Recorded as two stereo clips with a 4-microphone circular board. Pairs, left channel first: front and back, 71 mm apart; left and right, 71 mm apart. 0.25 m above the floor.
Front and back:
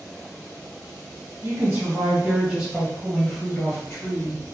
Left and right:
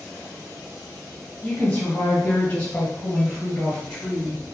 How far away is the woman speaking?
About 1.7 m.